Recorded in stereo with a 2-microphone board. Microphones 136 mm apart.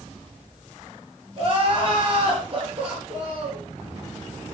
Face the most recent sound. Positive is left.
turn(degrees=-45)  # may be behind; listen again after turning